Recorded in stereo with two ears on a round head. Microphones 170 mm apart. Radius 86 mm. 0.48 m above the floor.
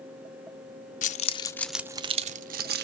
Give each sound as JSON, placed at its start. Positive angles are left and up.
{"t": 1.0, "sound": "keys jangling", "side_deg": 45, "distance_m": 0.6}